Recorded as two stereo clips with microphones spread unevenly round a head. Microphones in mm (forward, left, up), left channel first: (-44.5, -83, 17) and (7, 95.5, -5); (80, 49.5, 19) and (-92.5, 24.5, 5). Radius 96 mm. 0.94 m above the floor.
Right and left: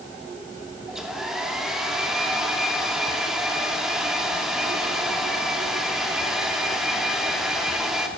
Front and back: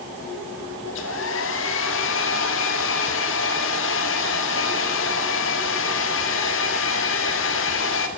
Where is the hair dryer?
10° right, 2.5 m.